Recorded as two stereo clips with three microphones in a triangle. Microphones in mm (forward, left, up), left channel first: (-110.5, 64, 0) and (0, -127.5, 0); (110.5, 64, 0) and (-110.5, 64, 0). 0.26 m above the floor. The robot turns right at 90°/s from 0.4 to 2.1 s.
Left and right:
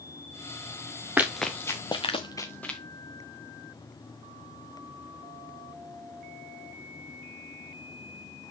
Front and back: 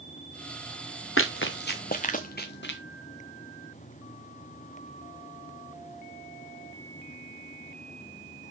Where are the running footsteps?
20° left, 1.2 m; by 2.8 s 30° left, 1.5 m.